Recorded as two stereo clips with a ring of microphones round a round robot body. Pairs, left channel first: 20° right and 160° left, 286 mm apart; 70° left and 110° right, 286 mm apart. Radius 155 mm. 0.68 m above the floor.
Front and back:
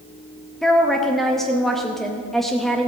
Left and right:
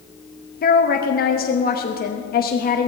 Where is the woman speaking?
65° left, 0.9 m.